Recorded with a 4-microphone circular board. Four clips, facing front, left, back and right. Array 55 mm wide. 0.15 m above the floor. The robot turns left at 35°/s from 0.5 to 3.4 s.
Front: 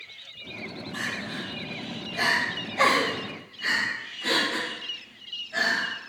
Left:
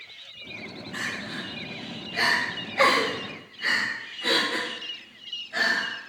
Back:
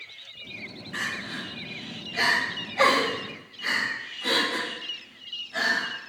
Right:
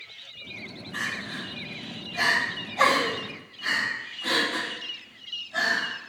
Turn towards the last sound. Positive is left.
turn(degrees=70)